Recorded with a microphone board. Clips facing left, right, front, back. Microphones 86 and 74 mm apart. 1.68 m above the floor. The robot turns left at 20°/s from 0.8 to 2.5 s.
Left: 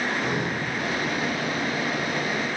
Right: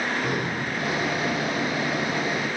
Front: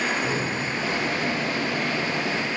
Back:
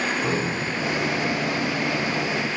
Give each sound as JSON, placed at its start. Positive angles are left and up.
{"t": 0.2, "sound": "breathing", "azimuth_deg": -170, "distance_m": 1.9}